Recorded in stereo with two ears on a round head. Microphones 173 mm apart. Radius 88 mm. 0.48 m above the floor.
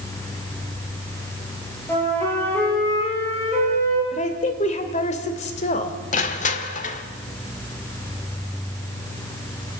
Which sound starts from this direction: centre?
A flute, at 1.9 s.